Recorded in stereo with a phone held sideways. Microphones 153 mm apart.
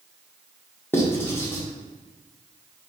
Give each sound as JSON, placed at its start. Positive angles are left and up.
{"t": 0.9, "sound": "writing", "side_deg": 15, "distance_m": 1.5}